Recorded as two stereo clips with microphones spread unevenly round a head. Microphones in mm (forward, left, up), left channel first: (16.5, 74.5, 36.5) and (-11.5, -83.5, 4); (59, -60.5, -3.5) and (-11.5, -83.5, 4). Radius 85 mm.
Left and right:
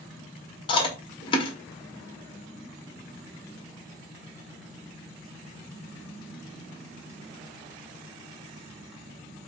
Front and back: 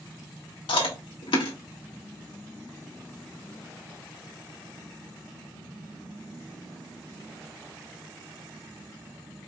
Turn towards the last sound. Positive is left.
turn(degrees=25)